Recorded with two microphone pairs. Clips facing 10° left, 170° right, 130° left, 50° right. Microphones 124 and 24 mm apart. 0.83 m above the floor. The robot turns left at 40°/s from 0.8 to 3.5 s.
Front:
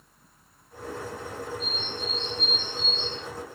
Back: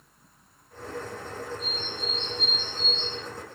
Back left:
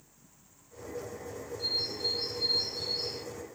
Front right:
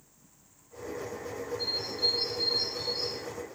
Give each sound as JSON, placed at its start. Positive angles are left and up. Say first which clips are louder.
{"t": 1.6, "sound": "a bird", "louder": "front 1 dB, front right 1 dB", "azimuth_deg": -15, "distance_m": 1.6}